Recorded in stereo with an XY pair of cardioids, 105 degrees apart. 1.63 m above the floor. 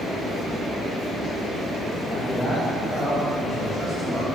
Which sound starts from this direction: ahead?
A man speaking, at 2.1 s.